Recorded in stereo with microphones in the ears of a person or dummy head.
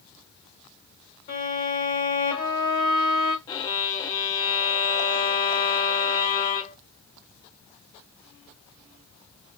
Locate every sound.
1.3 s a violin: 45° left (ahead or behind), 1.9 m
3.5 s a violin: 35° left (ahead or behind), 0.6 m